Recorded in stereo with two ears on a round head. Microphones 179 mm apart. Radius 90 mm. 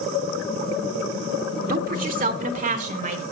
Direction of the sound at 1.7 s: 45° right (ahead or behind).